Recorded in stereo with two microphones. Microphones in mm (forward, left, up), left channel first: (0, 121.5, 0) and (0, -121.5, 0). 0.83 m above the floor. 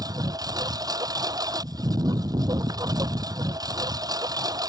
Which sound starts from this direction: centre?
A lawn mower, at 0.0 s.